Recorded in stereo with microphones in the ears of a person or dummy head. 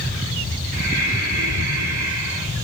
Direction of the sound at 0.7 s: 45° right (ahead or behind).